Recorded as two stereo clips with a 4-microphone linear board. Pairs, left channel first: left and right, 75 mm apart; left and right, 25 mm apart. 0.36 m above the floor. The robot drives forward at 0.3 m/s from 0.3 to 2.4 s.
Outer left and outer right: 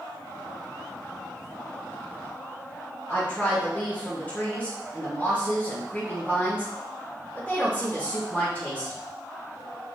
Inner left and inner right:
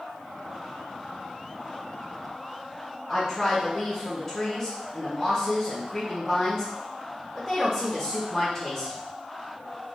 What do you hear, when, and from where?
3.1 s a woman speaking: 20° left (ahead or behind), 1.3 m